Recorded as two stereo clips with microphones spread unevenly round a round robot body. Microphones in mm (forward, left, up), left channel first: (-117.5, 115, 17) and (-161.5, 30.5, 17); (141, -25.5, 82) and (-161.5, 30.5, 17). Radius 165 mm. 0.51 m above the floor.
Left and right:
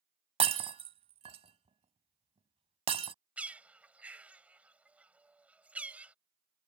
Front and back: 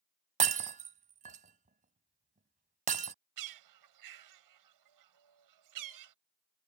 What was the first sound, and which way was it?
Breaking glass, 125° right.